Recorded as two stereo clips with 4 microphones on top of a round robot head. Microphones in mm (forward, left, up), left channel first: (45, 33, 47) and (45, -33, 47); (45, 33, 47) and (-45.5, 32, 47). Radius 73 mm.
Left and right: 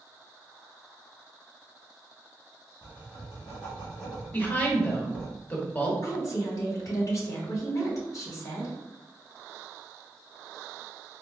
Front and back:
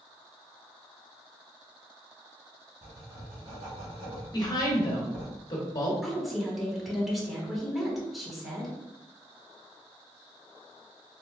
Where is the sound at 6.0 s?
90° left, 1.5 m.